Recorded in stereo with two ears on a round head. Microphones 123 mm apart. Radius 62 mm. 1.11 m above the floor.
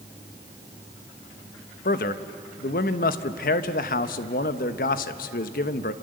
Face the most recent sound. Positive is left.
turn(degrees=75)  # may be behind; listen again after turning